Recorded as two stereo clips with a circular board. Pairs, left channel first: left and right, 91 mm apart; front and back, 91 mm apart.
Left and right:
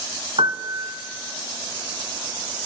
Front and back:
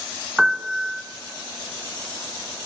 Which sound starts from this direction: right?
A piano, at 0.4 s.